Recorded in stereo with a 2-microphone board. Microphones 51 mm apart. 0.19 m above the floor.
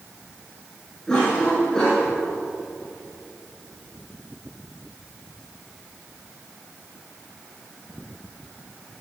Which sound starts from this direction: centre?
A cough, at 1.1 s.